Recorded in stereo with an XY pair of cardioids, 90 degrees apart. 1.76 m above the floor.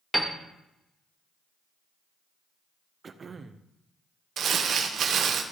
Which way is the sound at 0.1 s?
Straight ahead.